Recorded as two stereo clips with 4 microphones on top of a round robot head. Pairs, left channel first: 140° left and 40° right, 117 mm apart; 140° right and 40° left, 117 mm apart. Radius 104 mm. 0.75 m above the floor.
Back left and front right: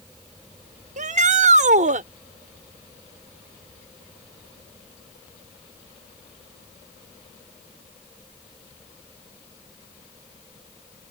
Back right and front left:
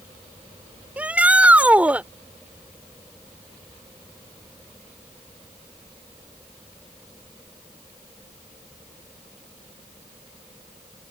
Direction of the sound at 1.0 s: 40° right.